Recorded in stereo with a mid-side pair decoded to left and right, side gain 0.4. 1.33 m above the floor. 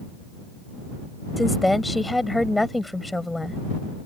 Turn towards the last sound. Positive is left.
turn(degrees=10)